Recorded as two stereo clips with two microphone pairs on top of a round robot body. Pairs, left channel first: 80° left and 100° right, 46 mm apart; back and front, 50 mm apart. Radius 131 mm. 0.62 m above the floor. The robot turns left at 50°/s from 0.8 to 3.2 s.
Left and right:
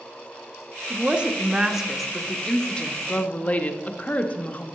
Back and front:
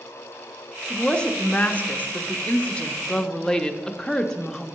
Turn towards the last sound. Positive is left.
turn(degrees=120)